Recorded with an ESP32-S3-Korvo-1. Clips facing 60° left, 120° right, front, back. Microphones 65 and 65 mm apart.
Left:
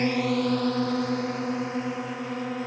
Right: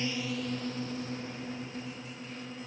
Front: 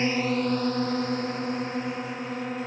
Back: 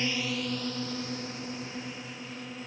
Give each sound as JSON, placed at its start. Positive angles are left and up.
{"t": 0.0, "sound": "a drone", "azimuth_deg": 45}